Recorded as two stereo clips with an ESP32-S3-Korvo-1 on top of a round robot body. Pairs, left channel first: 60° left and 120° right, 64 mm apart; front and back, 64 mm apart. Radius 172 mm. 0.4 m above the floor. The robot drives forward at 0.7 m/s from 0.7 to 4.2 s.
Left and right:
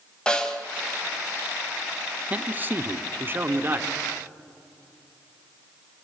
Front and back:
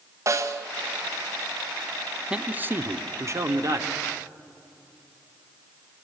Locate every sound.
0.3 s a snare drum: 140° left, 1.3 m
2.3 s a man speaking: 130° right, 0.9 m; by 4.0 s 170° right, 1.7 m